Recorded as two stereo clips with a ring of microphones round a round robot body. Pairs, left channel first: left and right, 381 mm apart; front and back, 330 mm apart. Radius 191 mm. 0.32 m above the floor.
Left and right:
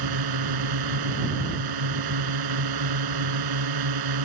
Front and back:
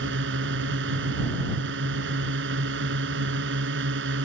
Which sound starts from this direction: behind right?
A drone, at 0.0 s.